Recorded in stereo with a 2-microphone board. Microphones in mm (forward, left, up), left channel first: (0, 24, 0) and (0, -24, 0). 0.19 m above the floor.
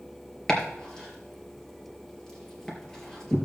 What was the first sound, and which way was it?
Chopping, 15° left (ahead or behind).